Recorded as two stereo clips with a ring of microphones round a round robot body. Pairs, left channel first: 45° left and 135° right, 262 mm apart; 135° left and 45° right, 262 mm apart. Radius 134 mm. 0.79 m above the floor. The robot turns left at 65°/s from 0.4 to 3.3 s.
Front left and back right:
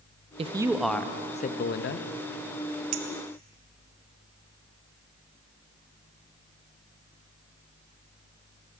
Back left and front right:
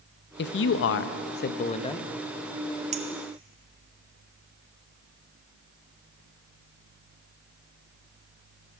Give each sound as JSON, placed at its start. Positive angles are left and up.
{"t": 0.4, "sound": "a man speaking", "azimuth_deg": 165, "distance_m": 0.6}
{"t": 2.9, "sound": "a clink", "azimuth_deg": -110, "distance_m": 0.9}